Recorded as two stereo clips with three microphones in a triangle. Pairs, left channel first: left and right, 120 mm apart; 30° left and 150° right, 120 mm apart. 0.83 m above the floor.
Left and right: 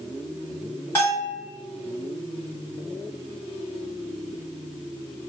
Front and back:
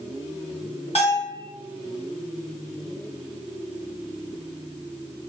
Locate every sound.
0.9 s a bell: 30° left, 1.5 m